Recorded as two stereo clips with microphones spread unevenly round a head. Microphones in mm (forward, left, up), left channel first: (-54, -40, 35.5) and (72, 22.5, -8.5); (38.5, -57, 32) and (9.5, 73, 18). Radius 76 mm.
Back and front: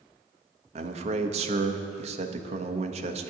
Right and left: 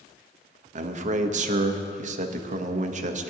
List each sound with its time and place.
0.8 s a man speaking: 70° left, 0.9 m